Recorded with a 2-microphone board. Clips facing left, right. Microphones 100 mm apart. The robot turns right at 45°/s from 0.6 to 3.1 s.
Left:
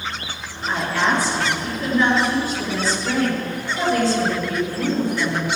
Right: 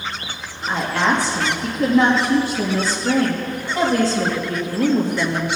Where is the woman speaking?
150° right, 3 m; by 5.5 s 40° right, 3 m.